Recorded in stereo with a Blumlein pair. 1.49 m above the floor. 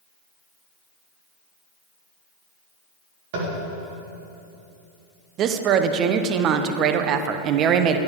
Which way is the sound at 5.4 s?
35° right.